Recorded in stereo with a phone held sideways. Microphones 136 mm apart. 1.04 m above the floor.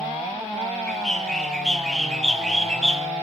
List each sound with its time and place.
0.9 s a bird: 5° left (ahead or behind), 0.8 m